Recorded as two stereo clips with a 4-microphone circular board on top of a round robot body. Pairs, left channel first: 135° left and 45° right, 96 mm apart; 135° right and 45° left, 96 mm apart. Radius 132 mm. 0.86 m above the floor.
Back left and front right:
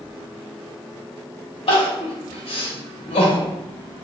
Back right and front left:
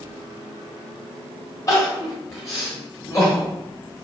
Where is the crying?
165° left, 1.1 m.